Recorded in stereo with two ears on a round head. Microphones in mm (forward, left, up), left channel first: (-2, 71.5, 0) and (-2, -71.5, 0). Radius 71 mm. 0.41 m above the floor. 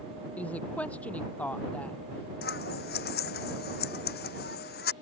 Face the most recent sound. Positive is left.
turn(degrees=65)  # may be behind; listen again after turning